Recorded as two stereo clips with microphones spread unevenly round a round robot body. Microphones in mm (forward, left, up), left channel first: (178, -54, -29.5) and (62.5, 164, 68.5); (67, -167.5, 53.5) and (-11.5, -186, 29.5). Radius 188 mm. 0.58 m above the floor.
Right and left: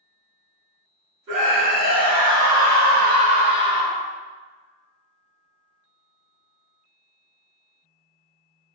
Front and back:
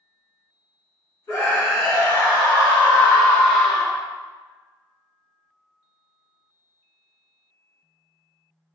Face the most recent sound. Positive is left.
turn(degrees=-125)